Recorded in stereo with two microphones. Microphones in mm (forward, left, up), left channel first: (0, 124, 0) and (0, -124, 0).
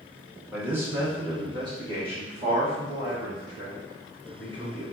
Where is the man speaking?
5° right (ahead or behind), 0.9 m; by 4.8 s 20° right (ahead or behind), 3 m.